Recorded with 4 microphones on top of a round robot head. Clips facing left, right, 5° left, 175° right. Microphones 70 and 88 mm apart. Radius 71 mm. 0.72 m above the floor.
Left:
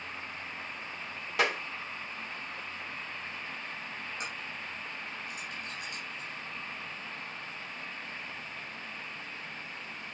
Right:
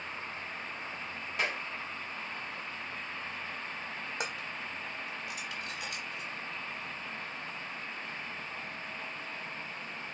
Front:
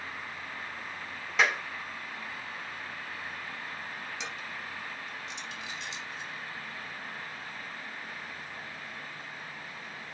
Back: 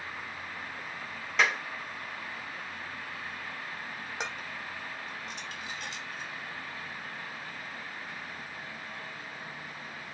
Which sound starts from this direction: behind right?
Dishes clattering, at 4.2 s.